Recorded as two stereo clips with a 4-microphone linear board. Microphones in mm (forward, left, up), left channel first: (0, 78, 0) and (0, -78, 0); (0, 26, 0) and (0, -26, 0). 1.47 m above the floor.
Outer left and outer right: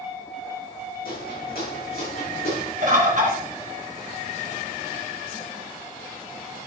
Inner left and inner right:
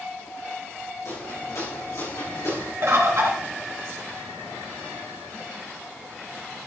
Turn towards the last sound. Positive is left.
turn(degrees=-55)  # may be behind; listen again after turning